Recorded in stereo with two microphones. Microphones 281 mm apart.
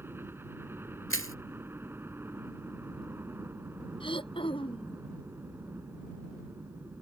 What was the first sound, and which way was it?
A helicopter, 10° right (ahead or behind).